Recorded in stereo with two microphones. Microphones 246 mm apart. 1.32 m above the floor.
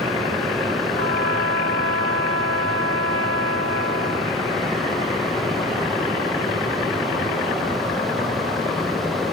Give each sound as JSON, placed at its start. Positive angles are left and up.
{"t": 0.9, "sound": "a trumpet", "side_deg": -80}